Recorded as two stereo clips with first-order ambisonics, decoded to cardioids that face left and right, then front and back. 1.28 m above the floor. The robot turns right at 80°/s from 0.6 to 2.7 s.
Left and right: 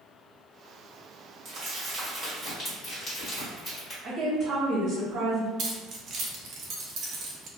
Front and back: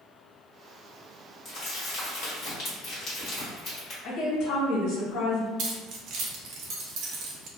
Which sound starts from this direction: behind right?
Keys jangling, at 5.6 s.